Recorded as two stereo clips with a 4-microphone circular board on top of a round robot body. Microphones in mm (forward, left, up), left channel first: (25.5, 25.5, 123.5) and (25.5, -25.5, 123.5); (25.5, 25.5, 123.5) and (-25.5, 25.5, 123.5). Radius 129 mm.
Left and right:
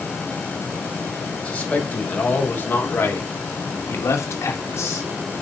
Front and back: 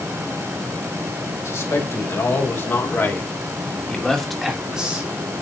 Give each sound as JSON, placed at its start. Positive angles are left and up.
{"t": 1.4, "sound": "a man speaking", "azimuth_deg": 25, "distance_m": 5.0}